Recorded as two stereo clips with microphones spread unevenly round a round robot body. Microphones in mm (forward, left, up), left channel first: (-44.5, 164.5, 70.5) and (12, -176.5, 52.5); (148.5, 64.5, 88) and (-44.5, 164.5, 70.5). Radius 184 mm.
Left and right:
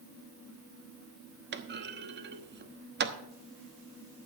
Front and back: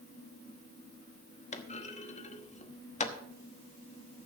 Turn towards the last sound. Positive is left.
turn(degrees=-65)